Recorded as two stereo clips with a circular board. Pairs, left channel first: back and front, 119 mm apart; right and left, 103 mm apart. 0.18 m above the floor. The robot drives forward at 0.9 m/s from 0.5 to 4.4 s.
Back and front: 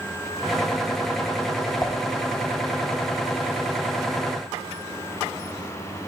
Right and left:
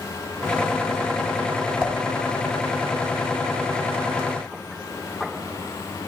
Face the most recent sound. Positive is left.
turn(degrees=-175)